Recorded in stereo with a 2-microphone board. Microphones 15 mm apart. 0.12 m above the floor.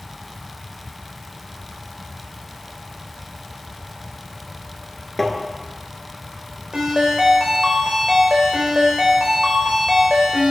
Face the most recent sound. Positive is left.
turn(degrees=-60)  # may be behind; listen again after turning